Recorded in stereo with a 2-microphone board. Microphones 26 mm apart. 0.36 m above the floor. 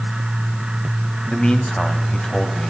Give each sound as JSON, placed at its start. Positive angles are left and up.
{"t": 1.3, "sound": "a man speaking", "side_deg": 40, "distance_m": 1.8}